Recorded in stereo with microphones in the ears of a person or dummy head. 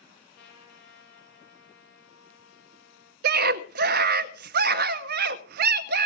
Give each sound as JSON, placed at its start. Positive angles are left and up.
{"t": 0.3, "sound": "a trumpet", "side_deg": 60, "distance_m": 7.5}
{"t": 3.2, "sound": "a scream", "side_deg": -60, "distance_m": 1.0}